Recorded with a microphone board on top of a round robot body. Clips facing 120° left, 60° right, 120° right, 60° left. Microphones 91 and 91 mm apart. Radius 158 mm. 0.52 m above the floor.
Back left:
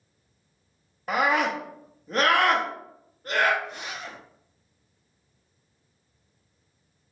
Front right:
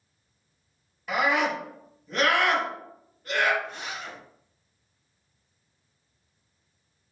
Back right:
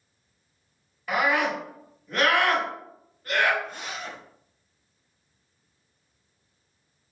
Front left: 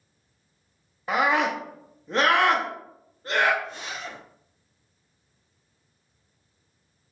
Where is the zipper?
165° right, 1.6 m.